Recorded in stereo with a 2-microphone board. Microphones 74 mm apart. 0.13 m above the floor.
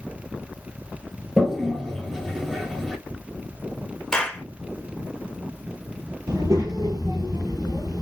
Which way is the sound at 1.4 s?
5° right (ahead or behind).